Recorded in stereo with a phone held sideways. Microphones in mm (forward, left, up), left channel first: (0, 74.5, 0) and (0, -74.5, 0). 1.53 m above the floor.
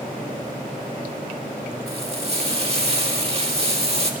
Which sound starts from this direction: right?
Frying, at 1.9 s.